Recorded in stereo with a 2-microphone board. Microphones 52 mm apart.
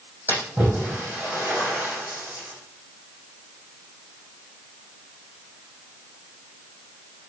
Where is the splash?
30° right (ahead or behind), 5 m.